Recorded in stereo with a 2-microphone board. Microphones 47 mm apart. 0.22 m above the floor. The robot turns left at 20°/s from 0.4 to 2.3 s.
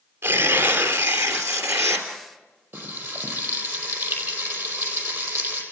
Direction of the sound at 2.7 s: 60° right (ahead or behind).